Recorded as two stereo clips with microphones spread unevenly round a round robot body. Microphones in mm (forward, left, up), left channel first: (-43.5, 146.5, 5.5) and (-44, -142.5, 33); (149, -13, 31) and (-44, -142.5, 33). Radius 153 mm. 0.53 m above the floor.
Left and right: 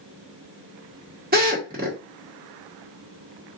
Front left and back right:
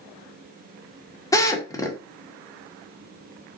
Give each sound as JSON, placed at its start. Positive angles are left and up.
{"t": 1.3, "sound": "a drill", "azimuth_deg": -35, "distance_m": 1.7}